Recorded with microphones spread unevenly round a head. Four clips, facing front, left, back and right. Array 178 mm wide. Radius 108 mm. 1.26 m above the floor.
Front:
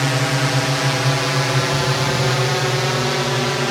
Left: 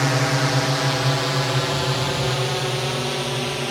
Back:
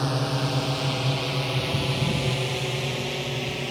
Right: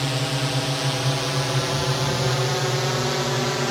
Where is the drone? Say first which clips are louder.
Left 5 dB, front 6 dB; 35° left; by 3.7 s 10° right.